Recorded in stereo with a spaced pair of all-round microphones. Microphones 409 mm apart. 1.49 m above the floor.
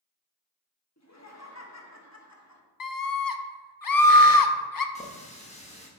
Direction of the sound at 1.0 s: 40° left (ahead or behind).